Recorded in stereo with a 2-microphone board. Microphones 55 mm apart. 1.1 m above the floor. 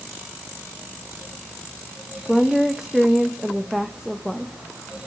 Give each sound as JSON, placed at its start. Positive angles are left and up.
{"t": 2.2, "sound": "a woman speaking", "side_deg": -5, "distance_m": 1.0}